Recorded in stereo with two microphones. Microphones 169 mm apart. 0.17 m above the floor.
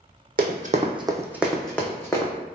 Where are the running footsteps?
65° right (ahead or behind), 0.5 m; by 2.3 s 20° left (ahead or behind), 0.9 m.